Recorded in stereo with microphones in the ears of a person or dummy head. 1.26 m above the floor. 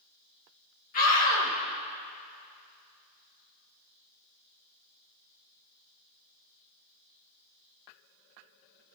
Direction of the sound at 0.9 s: 50° left (ahead or behind).